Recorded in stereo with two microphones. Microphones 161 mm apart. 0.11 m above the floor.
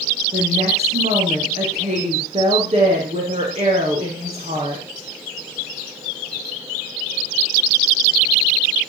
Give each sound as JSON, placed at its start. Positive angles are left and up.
{"t": 0.3, "sound": "a woman speaking", "side_deg": -40, "distance_m": 5.0}